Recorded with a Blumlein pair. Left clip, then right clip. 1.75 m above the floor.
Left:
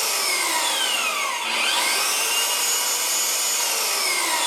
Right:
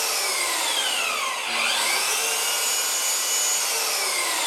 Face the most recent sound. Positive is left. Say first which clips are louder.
# left 2 dB
turn(degrees=70)